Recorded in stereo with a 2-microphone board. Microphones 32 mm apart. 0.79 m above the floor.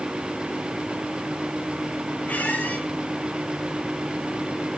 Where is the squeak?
75° left (ahead or behind), 8.5 m.